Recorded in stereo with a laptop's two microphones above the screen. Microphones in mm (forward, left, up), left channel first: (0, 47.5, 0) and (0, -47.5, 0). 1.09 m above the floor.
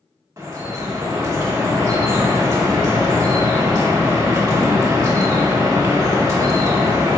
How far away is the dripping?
About 1.0 m.